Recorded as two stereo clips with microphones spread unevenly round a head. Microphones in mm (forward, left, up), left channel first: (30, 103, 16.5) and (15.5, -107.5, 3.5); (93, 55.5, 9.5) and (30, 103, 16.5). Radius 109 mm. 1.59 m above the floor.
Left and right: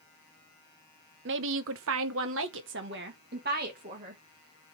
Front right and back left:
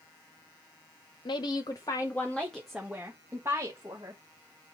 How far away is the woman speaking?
About 0.8 m.